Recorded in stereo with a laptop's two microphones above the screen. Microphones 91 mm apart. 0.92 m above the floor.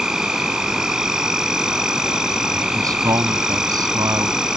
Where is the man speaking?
40° right (ahead or behind).